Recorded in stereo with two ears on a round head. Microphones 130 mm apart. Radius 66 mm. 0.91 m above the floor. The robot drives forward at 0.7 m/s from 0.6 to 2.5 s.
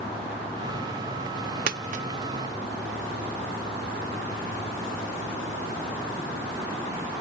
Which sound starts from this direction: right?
A dropped coin, at 1.7 s.